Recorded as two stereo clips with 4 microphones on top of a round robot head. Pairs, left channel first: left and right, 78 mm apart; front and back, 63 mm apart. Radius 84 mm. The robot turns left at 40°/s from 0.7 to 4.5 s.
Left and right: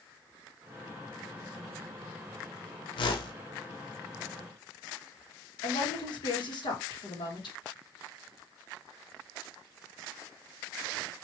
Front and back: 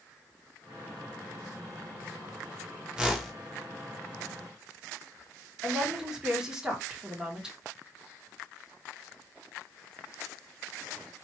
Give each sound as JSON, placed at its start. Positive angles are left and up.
{"t": 3.0, "sound": "a whoosh", "azimuth_deg": 100, "distance_m": 0.9}
{"t": 5.6, "sound": "a woman speaking", "azimuth_deg": 100, "distance_m": 1.8}